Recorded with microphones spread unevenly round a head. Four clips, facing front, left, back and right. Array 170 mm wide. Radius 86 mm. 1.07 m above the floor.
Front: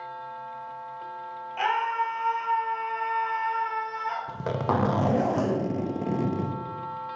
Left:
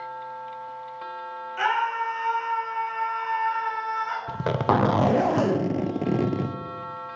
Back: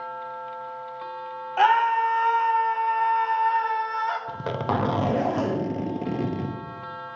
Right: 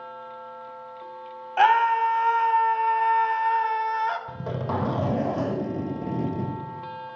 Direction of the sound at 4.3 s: 90° left.